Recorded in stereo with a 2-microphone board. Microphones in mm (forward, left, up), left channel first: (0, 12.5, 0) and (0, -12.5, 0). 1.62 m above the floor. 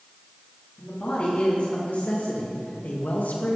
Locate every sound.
0.8 s a man speaking: 50° left (ahead or behind), 3.5 m; by 3.6 s 75° left (ahead or behind), 2.5 m